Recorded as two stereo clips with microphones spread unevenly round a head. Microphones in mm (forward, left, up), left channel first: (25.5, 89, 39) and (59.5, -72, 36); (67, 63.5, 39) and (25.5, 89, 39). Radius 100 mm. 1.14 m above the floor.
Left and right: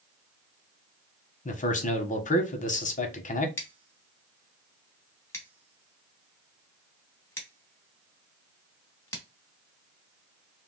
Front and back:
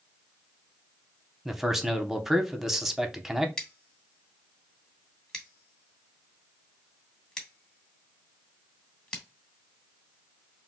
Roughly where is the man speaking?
Ahead left.